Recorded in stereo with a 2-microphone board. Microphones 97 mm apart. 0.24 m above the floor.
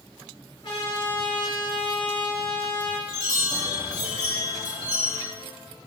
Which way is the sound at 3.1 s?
10° right (ahead or behind).